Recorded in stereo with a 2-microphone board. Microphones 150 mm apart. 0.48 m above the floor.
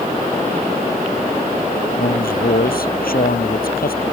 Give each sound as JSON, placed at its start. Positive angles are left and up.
{"t": 2.0, "sound": "a man speaking", "side_deg": 75}